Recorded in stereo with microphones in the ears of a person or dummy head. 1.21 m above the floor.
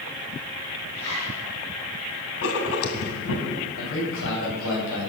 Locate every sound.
0.9 s a zipper: 30° left (ahead or behind), 9 m
2.4 s writing: 65° left (ahead or behind), 2.5 m
3.8 s a man speaking: 70° left (ahead or behind), 7.5 m